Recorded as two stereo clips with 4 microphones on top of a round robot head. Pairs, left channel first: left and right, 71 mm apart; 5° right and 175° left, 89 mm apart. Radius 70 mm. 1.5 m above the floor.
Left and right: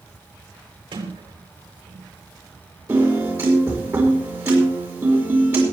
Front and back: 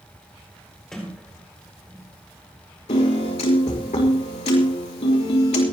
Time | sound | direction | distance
0.9 | a sliding door | 90° right | 4.5 m
2.9 | a piano | 25° right | 6 m